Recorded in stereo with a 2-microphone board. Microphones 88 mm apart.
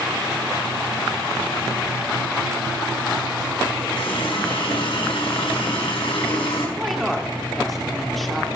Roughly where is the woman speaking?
Centre.